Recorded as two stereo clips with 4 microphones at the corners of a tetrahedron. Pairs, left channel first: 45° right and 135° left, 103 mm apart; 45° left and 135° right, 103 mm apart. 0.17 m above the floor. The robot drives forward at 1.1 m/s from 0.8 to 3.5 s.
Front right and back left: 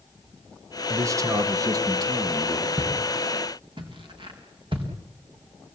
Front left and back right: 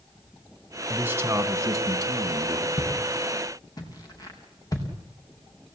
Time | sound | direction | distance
0.9 | a man speaking | 165° left | 1.4 m
2.8 | footsteps | 80° left | 5 m